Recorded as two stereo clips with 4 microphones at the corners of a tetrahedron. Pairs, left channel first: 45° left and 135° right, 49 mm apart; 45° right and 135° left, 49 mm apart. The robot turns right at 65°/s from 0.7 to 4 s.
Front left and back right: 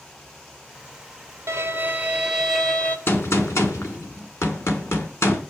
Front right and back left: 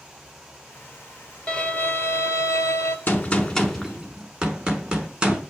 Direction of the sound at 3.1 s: 10° left.